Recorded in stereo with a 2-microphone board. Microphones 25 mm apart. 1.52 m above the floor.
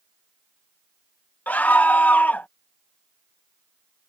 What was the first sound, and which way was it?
A scream, 80° left.